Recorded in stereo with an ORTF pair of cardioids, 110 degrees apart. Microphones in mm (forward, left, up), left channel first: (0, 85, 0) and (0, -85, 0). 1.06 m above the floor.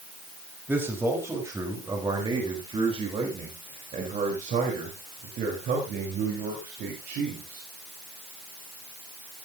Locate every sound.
0.7 s a man speaking: 15° right, 4.5 m; by 7.7 s 75° right, 5 m